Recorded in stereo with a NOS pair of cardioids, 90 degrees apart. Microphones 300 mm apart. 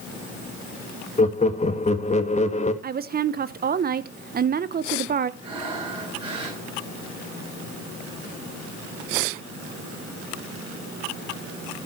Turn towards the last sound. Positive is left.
turn(degrees=-15)